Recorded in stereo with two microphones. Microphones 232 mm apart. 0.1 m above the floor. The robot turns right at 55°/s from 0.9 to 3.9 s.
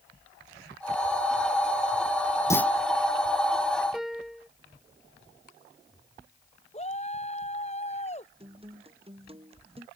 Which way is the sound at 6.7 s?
30° left (ahead or behind).